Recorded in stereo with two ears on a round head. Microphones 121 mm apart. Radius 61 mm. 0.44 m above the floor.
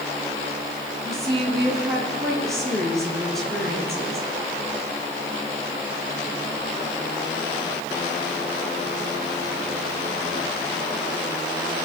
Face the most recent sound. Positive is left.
turn(degrees=0)  # may be behind; listen again after turning